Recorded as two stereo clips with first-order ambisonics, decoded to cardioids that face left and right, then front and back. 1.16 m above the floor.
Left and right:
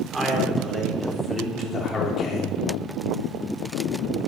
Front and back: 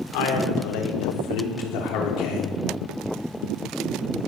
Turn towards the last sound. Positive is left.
turn(degrees=35)